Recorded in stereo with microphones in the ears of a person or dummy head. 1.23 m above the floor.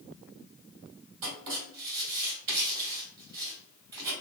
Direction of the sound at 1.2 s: 55° right (ahead or behind).